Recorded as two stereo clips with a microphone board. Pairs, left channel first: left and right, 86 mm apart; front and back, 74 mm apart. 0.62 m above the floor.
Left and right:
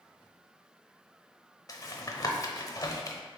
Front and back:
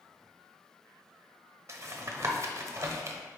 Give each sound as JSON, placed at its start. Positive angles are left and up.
{"t": 1.7, "sound": "tapping", "azimuth_deg": 135, "distance_m": 1.0}